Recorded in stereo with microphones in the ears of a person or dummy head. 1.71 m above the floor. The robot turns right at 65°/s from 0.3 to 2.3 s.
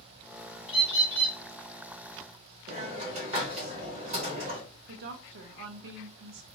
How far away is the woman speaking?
About 0.5 m.